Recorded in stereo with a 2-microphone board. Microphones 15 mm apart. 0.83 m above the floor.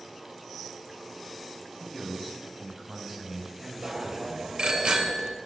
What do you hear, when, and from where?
1.8 s a man speaking: 10° left (ahead or behind), 4 m; by 4.6 s 30° right (ahead or behind), 4.5 m
3.8 s a bicycle bell: 65° right (ahead or behind), 2.5 m